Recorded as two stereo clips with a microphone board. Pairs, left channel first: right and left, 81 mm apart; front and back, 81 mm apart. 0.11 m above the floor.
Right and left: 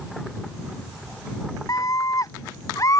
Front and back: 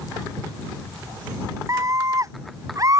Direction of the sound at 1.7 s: 130° right.